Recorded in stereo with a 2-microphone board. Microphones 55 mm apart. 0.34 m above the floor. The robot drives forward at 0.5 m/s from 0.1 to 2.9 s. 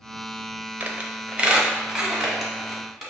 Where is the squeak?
30° right (ahead or behind), 0.5 m; by 3.1 s 10° right (ahead or behind), 1.4 m.